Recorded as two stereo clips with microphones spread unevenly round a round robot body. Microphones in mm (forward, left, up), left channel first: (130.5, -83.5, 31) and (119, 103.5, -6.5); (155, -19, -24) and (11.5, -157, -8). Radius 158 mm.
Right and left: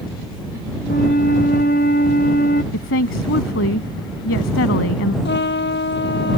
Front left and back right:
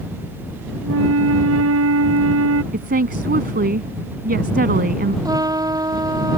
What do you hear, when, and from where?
0.8 s a flute: 150° right
2.7 s a woman speaking: 100° right
5.2 s a trumpet: 65° right